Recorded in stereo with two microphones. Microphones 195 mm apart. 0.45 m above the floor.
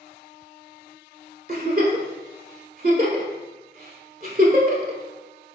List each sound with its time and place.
1.5 s a giggle: 50° right (ahead or behind), 0.7 m